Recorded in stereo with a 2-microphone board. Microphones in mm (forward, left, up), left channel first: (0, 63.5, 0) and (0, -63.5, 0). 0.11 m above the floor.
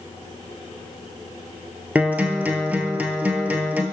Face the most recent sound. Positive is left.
turn(degrees=-10)  # may be behind; listen again after turning